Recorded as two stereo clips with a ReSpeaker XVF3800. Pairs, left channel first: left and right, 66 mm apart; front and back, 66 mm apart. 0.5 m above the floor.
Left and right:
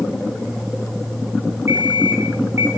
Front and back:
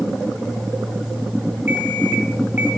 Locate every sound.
1.7 s an alarm clock: 125° right, 1.2 m